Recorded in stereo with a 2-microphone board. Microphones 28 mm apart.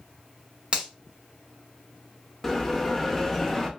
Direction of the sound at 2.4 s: 5° left (ahead or behind).